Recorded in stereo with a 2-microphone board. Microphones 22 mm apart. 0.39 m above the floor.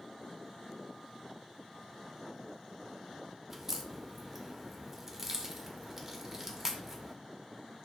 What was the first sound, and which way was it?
A crack, 15° right (ahead or behind).